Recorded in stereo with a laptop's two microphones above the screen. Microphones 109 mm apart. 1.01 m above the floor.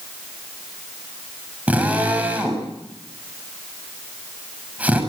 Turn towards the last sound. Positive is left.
turn(degrees=-15)  # may be behind; listen again after turning